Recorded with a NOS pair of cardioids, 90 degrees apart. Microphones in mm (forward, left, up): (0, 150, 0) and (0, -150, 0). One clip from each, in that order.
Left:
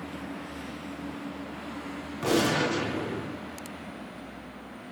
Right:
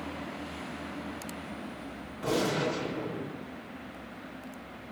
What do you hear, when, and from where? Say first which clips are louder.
2.2 s a gunshot: left 4 dB; 65° left, 1.7 m